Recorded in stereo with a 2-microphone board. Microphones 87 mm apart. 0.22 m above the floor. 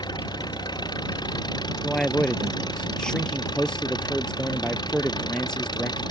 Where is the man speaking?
10° left (ahead or behind).